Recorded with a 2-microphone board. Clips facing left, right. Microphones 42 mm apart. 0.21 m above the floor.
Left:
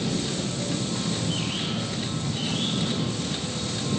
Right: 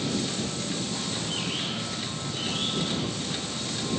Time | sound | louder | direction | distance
0.0 | an aircraft | left 1 dB | 25° left (ahead or behind) | ?